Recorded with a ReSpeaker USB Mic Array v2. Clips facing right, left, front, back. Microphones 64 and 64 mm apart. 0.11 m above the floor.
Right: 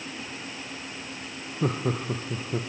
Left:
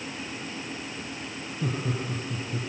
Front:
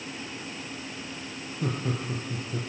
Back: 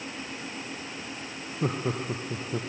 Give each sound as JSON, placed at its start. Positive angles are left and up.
{"t": 1.6, "sound": "laughter", "azimuth_deg": -125, "distance_m": 3.0}